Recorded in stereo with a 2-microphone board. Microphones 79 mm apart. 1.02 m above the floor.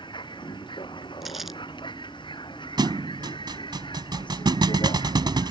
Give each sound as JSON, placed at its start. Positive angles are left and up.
{"t": 0.0, "sound": "a vehicle", "side_deg": 85}
{"t": 1.2, "sound": "crumpling", "side_deg": 0}
{"t": 2.8, "sound": "a thud", "side_deg": -65}